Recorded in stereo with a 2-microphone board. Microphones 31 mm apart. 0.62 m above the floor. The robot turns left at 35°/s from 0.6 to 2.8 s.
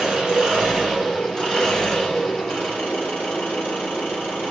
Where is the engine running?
170° right, 6 m; by 4.5 s 110° left, 6 m.